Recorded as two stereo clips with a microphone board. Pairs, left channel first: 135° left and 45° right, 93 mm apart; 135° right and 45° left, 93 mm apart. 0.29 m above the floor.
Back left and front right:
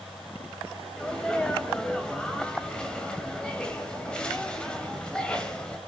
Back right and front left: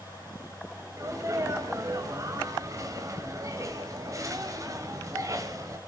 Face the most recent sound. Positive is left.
turn(degrees=60)